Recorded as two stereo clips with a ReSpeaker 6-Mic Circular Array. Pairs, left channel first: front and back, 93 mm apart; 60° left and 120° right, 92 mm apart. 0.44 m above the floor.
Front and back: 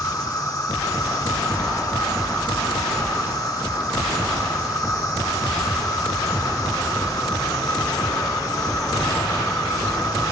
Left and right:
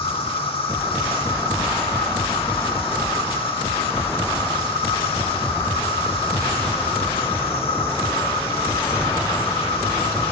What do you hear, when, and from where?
0.0 s an insect: 50° left, 0.7 m